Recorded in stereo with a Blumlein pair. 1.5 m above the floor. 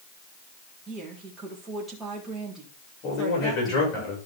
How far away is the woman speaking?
About 3.5 m.